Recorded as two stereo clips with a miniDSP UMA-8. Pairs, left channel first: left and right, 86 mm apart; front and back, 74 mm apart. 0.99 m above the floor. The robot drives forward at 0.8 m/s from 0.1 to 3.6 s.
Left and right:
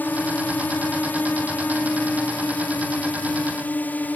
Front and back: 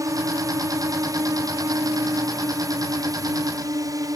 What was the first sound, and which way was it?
A drone, 155° left.